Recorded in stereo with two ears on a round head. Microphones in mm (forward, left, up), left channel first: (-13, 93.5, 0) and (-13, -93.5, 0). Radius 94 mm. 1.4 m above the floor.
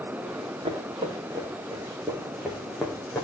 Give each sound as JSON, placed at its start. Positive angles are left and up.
{"t": 0.2, "sound": "running footsteps", "side_deg": -25, "distance_m": 6.0}